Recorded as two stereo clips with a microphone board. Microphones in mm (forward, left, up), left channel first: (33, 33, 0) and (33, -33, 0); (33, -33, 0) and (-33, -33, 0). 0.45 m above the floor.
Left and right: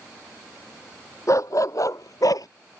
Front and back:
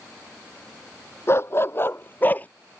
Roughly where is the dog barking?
Ahead left.